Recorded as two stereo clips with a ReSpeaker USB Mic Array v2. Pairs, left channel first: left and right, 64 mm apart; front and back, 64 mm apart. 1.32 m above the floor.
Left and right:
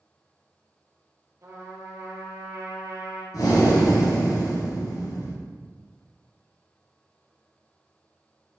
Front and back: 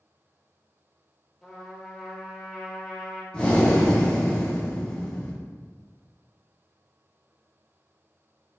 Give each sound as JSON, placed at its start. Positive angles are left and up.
{"t": 1.4, "sound": "a trumpet", "azimuth_deg": -90, "distance_m": 0.9}
{"t": 3.3, "sound": "breathing", "azimuth_deg": 75, "distance_m": 1.0}